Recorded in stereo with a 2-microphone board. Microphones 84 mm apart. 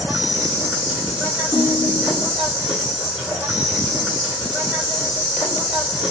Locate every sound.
0.0 s an insect: 10° right (ahead or behind), 1.4 m
1.5 s a ringtone: 10° left (ahead or behind), 0.6 m